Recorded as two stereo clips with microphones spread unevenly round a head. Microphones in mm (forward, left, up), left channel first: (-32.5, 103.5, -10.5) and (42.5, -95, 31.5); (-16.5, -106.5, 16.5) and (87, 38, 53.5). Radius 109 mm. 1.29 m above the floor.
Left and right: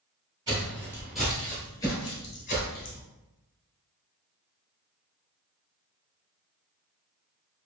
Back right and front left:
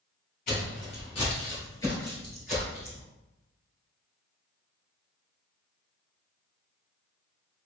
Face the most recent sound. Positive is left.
turn(degrees=100)